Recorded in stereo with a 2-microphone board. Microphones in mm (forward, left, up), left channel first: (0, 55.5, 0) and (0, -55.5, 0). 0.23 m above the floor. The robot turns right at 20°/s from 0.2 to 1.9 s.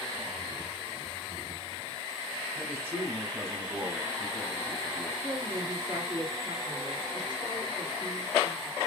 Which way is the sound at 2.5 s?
20° right (ahead or behind).